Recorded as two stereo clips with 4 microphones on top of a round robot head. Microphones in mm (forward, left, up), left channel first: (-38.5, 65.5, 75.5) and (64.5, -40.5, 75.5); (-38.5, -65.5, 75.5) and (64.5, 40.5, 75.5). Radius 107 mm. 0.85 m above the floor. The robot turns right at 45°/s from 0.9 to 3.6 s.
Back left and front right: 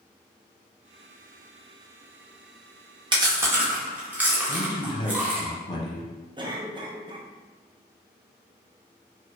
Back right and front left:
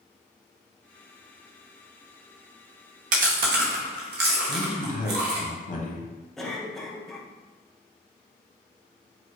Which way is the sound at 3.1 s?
10° left.